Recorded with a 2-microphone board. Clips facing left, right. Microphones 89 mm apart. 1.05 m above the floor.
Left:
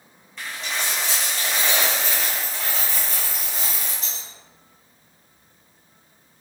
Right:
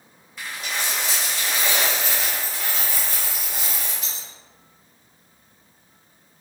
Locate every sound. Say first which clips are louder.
0.4 s a dropped coin: even; 5° right (ahead or behind), 1.2 m